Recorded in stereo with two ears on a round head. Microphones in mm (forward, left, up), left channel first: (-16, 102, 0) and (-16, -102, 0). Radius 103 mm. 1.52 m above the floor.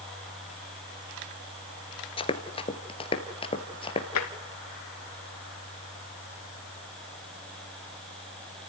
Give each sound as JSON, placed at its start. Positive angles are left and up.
{"t": 2.2, "sound": "running footsteps", "side_deg": 25, "distance_m": 1.6}
{"t": 4.2, "sound": "tapping", "side_deg": 90, "distance_m": 2.0}